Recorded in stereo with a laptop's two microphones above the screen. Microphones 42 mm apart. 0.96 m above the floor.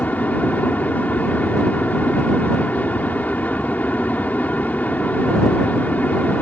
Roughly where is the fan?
Left.